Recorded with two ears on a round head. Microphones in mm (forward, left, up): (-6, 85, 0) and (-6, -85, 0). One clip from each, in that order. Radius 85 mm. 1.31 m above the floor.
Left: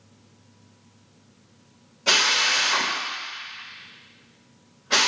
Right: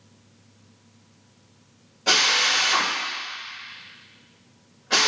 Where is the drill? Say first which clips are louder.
Even; 5° left (ahead or behind), 5 m.